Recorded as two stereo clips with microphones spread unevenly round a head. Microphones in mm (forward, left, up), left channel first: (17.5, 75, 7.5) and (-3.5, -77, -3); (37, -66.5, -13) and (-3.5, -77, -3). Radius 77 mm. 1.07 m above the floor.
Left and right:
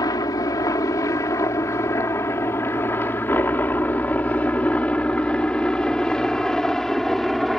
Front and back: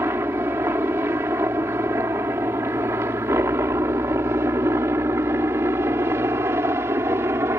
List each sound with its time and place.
0.0 s a helicopter: 150° left; by 7.6 s 170° left